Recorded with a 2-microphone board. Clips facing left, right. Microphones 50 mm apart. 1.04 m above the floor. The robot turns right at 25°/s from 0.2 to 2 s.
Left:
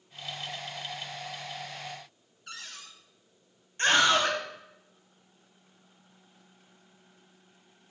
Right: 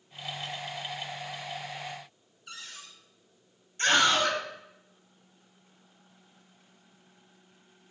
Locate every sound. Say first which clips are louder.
2.5 s a cupboard door: left 1 dB; 60° left (ahead or behind), 1.3 m
3.8 s a scream: left 1 dB; 35° left (ahead or behind), 4 m